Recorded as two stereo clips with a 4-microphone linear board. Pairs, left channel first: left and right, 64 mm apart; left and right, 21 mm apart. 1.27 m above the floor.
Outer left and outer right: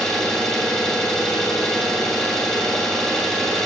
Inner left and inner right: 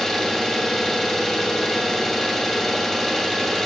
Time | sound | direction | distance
0.0 | an engine running | 10° left (ahead or behind) | 1.8 m